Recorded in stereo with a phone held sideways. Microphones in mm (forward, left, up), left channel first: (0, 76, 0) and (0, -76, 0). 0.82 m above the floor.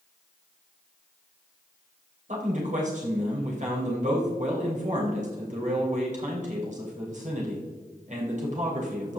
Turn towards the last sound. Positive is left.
turn(degrees=-55)  # may be behind; listen again after turning